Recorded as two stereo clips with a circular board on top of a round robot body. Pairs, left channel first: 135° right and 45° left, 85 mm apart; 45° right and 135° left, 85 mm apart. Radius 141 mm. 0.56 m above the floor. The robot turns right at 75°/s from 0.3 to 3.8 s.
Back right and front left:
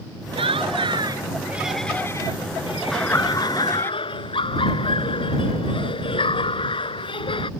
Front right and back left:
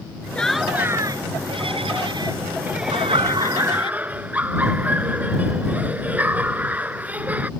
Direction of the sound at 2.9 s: 140° left.